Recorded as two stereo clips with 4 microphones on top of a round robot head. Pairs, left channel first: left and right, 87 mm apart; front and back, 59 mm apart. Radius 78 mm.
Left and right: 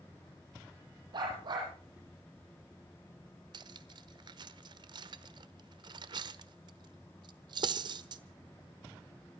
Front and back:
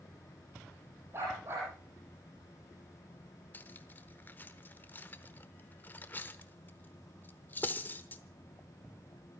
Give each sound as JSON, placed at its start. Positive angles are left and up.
{"t": 1.1, "sound": "a dog barking", "azimuth_deg": -125, "distance_m": 8.0}
{"t": 3.5, "sound": "cutlery clinking", "azimuth_deg": -60, "distance_m": 1.1}